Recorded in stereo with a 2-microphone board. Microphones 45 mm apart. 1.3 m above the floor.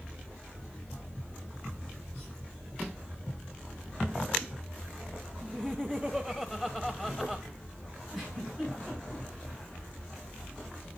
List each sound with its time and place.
5.4 s laughter: 5° right (ahead or behind), 0.7 m
8.1 s a giggle: centre (ahead or behind), 4.5 m